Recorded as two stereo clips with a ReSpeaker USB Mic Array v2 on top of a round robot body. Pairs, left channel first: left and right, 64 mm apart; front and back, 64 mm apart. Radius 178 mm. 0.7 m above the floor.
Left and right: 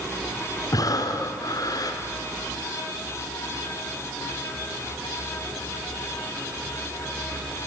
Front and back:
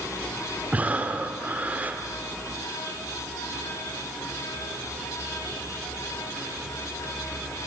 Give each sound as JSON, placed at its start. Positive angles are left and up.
{"t": 0.7, "sound": "breathing", "azimuth_deg": 115, "distance_m": 2.5}